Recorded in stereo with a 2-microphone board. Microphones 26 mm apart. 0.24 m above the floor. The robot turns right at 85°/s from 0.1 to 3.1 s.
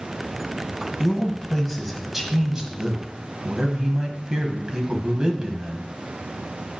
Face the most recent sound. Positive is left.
turn(degrees=-75)